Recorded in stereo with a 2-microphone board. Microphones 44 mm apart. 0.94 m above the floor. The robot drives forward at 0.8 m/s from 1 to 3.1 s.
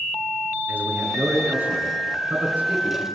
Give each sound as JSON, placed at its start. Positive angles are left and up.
{"t": 0.7, "sound": "a man speaking", "side_deg": -35, "distance_m": 9.5}